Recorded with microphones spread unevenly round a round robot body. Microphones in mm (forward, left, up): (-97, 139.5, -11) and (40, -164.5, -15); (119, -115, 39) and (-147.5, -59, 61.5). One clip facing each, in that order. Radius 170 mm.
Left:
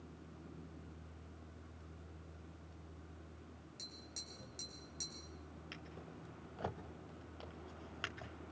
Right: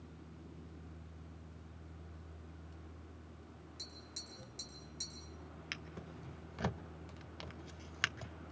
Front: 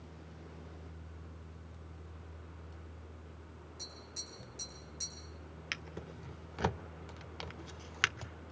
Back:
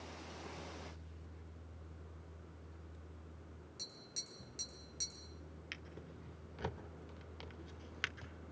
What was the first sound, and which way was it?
Tapping, 155° right.